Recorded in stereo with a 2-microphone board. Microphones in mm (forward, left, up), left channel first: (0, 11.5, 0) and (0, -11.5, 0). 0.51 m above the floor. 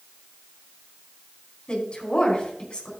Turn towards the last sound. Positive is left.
turn(degrees=45)  # may be behind; listen again after turning